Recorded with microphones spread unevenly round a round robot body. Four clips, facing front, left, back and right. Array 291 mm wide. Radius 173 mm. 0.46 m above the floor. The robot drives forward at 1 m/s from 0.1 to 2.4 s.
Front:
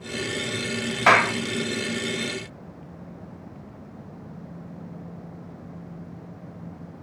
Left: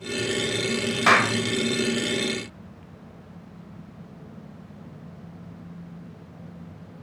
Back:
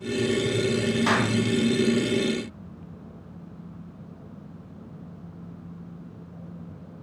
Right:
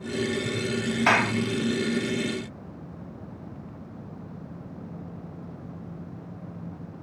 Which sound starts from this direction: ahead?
A clap, at 1.1 s.